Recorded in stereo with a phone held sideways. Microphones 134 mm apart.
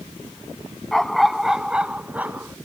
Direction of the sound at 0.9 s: 5° left (ahead or behind).